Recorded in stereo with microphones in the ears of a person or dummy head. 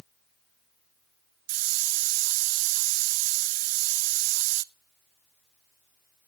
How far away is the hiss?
About 0.5 m.